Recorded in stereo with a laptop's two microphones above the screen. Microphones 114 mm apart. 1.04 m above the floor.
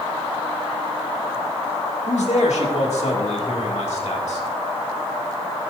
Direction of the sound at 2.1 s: 85° left.